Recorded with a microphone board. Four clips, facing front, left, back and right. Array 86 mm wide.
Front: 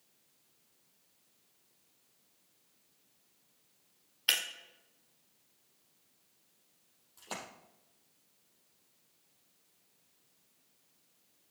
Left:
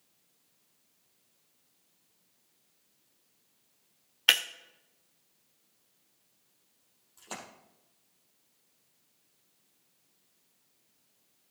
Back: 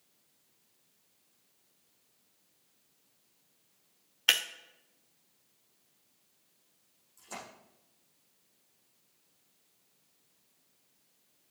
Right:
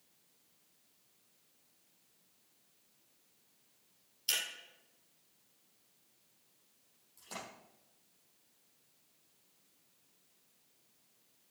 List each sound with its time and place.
4.3 s breaking glass: 110° left, 1.4 m
7.2 s a splash: 40° left, 4.5 m